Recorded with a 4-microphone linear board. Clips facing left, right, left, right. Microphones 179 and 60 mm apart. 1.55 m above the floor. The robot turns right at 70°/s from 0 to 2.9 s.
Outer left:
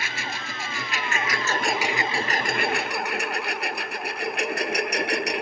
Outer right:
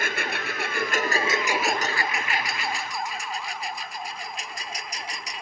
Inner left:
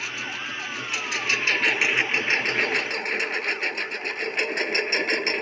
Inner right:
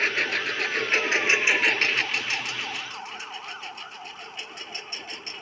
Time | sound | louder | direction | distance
0.0 | a lawn mower | outer right 4 dB, inner right 6 dB | 55° right (ahead or behind) | ?